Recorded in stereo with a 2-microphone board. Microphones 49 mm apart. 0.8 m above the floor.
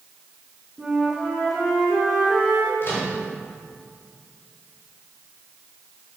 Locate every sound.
0.8 s a flute: 5° right (ahead or behind), 4 m
2.8 s a microwave: 50° left (ahead or behind), 4 m